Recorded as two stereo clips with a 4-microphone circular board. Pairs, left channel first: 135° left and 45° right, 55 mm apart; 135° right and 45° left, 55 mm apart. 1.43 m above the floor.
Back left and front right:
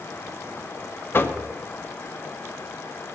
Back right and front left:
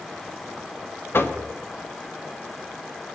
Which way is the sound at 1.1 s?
Straight behind.